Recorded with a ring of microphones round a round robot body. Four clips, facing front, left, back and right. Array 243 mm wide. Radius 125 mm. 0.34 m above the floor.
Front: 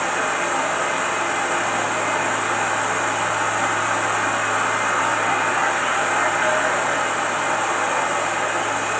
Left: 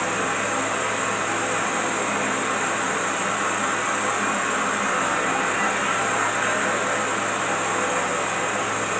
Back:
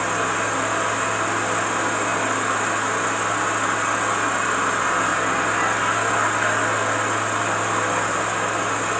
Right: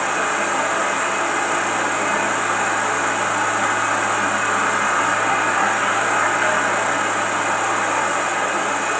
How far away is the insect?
About 1.7 m.